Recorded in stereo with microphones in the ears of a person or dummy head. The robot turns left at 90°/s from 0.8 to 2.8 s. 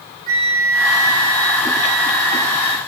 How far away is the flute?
About 2 m.